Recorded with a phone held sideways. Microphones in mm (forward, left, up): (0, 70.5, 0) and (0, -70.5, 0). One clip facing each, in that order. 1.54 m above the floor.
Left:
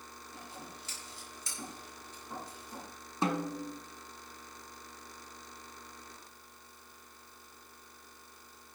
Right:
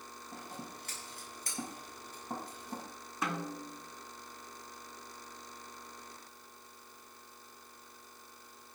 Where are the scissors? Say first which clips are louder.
Right 3 dB; 55° right (ahead or behind), 6.5 m.